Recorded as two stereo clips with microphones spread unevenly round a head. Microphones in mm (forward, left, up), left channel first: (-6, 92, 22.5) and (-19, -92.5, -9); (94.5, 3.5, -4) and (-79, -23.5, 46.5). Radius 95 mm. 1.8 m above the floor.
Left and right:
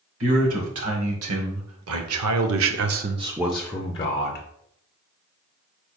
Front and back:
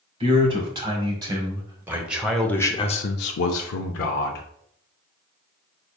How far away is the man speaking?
About 2 m.